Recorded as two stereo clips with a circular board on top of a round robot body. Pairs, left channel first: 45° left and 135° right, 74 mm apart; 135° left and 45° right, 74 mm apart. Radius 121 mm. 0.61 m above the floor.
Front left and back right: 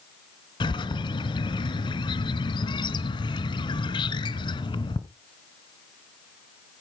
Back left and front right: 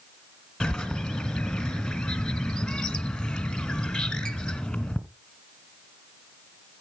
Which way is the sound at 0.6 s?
50° left.